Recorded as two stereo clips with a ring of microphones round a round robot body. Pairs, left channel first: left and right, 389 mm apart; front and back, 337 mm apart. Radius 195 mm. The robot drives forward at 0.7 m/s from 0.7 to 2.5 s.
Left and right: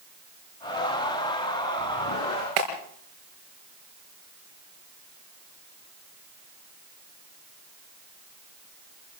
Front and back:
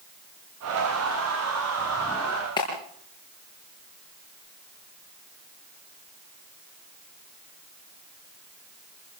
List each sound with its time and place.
2.6 s a clap: 80° right, 6 m